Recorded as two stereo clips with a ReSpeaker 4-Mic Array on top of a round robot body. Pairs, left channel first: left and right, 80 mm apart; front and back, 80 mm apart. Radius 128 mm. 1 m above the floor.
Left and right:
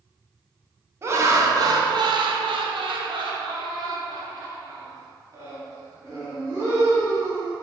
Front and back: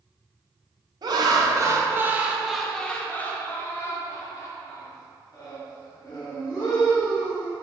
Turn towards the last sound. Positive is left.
turn(degrees=-35)